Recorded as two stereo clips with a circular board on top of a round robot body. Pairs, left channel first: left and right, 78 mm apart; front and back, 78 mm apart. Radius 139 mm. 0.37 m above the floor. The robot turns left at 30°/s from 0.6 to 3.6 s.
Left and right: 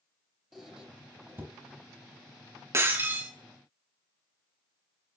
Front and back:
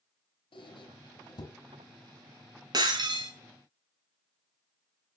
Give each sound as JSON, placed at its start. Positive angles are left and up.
{"t": 0.5, "sound": "a squeak", "azimuth_deg": -5, "distance_m": 2.5}
{"t": 2.7, "sound": "breaking glass", "azimuth_deg": -145, "distance_m": 3.5}